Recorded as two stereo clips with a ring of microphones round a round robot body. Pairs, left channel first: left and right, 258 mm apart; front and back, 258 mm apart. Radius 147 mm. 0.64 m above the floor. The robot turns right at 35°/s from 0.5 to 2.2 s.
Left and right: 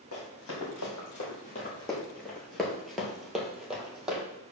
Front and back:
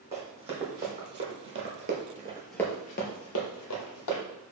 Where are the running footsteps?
115° left, 1.8 m; by 4.2 s 5° right, 1.3 m.